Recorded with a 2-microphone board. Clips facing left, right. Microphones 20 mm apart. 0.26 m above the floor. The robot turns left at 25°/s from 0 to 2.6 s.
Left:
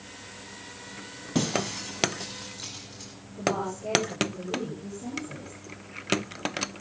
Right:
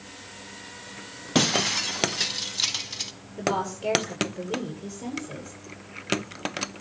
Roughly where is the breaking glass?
Right.